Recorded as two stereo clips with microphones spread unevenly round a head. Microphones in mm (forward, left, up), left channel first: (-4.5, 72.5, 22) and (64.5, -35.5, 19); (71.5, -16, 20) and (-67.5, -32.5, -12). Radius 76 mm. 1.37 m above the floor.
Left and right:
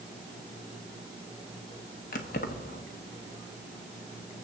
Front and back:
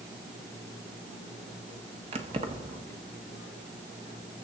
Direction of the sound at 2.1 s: 130° left.